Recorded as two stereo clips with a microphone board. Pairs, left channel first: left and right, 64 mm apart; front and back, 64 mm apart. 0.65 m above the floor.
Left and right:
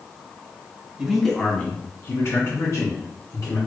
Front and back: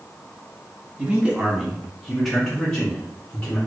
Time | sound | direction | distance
1.0 | a man speaking | 160° right | 0.8 m